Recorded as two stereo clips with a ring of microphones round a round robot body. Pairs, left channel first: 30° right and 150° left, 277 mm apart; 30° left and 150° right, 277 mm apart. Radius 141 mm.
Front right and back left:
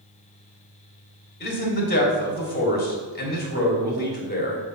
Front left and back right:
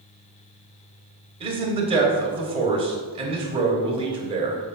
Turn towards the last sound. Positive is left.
turn(degrees=-80)